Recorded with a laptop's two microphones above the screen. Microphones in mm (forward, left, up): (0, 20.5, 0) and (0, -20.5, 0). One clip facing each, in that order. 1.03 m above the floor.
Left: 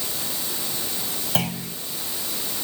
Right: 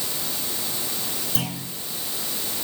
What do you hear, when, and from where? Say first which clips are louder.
1.4 s a clunk: left 4 dB; 55° left (ahead or behind), 5.5 m